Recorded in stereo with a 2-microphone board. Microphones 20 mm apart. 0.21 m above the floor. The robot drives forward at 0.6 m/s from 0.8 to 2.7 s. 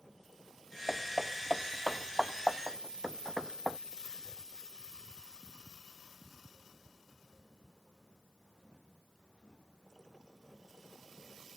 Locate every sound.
0.9 s hammering: 10° right (ahead or behind); by 3.8 s 5° right (ahead or behind)